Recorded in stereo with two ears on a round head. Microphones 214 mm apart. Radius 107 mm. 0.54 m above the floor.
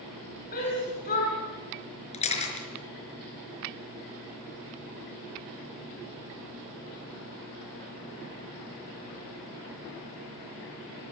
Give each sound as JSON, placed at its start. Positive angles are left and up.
{"t": 0.5, "sound": "a shout", "side_deg": 40, "distance_m": 5.5}
{"t": 2.1, "sound": "a camera shutter", "side_deg": 30, "distance_m": 4.5}